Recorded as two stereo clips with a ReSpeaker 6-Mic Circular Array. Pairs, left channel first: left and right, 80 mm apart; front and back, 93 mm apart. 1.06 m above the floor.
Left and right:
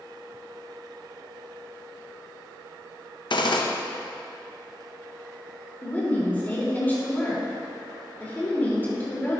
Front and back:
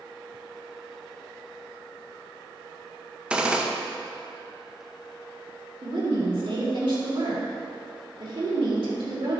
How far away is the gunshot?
About 0.7 m.